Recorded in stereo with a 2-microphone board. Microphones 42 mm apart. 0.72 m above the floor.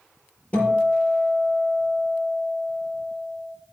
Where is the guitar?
30° left (ahead or behind), 6 m.